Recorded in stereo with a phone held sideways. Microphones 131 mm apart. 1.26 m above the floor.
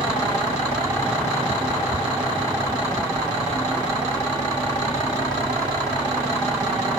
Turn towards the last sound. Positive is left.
turn(degrees=-30)  # may be behind; listen again after turning